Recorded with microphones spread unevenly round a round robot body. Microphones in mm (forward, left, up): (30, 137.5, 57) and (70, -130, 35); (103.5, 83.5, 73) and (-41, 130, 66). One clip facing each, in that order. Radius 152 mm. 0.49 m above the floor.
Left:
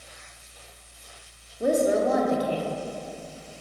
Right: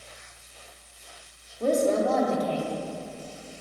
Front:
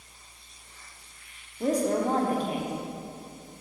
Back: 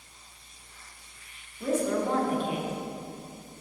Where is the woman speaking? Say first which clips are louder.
Left 1 dB, front 2 dB; 20° left, 1.4 m.